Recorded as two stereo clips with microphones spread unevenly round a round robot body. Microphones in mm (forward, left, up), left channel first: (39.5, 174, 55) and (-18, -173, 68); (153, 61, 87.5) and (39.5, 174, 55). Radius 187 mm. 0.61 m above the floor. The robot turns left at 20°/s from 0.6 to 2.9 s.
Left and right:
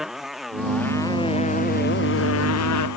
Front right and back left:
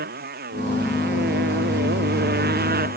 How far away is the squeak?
I don't hear a squeak.